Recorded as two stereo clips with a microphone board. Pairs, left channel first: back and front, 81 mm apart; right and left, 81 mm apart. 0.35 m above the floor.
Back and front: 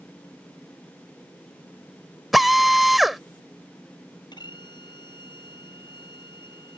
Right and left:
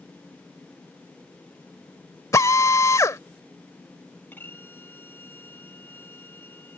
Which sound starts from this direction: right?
A drill, at 2.3 s.